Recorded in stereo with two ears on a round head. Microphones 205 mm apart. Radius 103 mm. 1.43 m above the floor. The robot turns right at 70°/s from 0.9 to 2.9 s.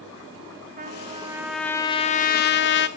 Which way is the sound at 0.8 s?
45° right.